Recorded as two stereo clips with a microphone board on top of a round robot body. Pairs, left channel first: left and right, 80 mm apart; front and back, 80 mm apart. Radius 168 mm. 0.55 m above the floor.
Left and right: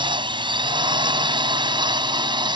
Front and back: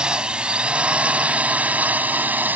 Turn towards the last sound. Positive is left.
turn(degrees=-110)